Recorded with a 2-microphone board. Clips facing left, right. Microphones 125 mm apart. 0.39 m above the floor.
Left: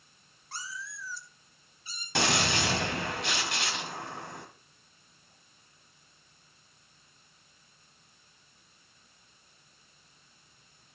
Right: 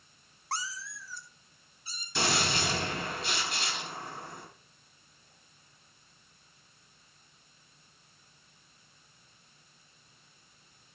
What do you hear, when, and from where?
0.5 s a cat meowing: 80° right, 0.6 m; by 2.0 s 35° right (ahead or behind), 2.5 m
2.1 s a gunshot: 65° left (ahead or behind), 2.5 m